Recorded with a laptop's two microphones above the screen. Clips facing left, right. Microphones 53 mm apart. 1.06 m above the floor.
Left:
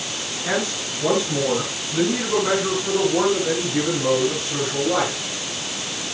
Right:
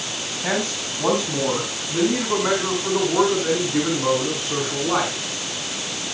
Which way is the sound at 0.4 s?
45° right (ahead or behind).